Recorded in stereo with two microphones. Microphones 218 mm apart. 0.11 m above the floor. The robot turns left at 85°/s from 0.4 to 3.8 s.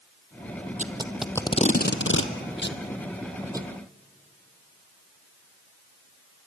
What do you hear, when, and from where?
0.8 s tape being pulled: 35° right (ahead or behind), 1.4 m; by 3.7 s 25° right (ahead or behind), 1.4 m